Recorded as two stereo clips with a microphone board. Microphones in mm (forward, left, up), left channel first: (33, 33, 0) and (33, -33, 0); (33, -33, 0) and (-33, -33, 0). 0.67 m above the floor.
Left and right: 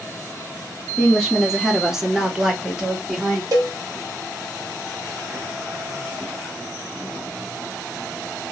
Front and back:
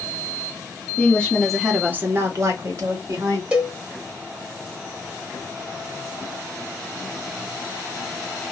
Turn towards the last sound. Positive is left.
turn(degrees=-105)